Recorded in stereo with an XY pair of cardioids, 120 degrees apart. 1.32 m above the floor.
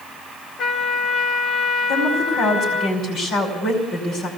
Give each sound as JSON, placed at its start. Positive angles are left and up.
{"t": 0.6, "sound": "a trumpet", "azimuth_deg": 60, "distance_m": 2.0}
{"t": 1.9, "sound": "a woman speaking", "azimuth_deg": 65, "distance_m": 5.0}